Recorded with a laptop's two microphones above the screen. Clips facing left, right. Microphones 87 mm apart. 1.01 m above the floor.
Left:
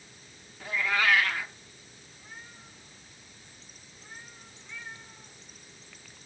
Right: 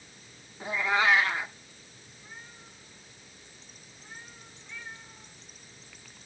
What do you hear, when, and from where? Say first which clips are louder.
0.6 s a cat meowing: right 2 dB; 20° right (ahead or behind), 0.6 m